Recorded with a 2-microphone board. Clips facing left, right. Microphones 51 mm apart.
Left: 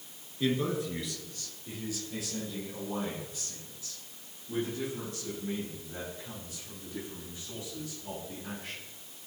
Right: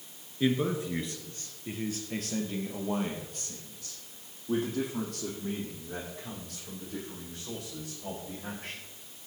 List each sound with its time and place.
0.4 s a man speaking: 15° right (ahead or behind), 2.5 m; by 8.8 s 75° right (ahead or behind), 10 m